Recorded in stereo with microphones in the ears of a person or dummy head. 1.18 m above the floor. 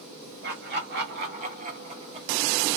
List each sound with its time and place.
0.4 s laughter: 40° right (ahead or behind), 1.3 m; by 2.8 s centre (ahead or behind), 0.6 m